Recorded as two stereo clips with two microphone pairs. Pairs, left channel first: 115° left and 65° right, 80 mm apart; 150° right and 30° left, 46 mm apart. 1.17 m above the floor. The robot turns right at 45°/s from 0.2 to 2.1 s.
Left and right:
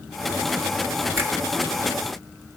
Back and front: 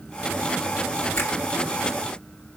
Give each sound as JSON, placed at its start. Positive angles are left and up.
{"t": 1.2, "sound": "a finger snap", "azimuth_deg": -130, "distance_m": 1.2}